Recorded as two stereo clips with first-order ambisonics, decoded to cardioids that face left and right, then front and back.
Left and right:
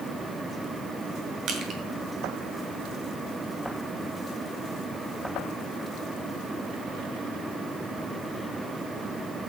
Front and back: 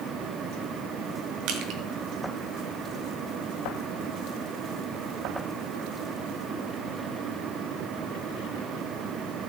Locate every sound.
1.5 s crushing: 145° right, 1.8 m